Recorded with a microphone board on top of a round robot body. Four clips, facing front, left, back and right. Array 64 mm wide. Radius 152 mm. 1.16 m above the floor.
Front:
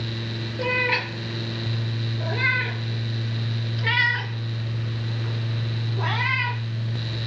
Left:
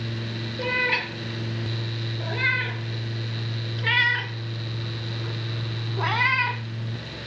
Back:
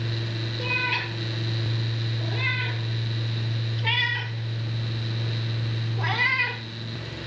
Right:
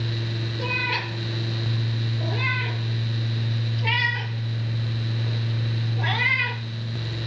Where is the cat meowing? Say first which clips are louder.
Left 3 dB, front 5 dB; 35° left, 3.5 m; by 6.6 s 90° left, 1.5 m.